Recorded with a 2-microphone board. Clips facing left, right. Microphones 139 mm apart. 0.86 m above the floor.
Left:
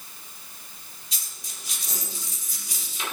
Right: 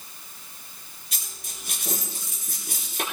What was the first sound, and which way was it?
A dropped coin, 55° right (ahead or behind).